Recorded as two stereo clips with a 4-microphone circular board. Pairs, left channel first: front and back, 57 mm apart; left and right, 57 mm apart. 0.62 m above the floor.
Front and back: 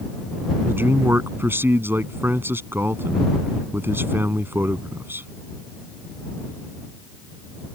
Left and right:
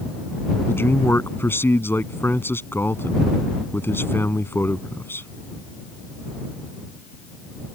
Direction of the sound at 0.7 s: 135° left.